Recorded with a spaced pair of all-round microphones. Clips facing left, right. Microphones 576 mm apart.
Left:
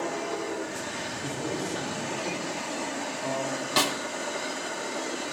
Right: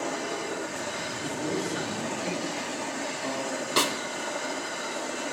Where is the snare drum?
15° left (ahead or behind), 0.6 m.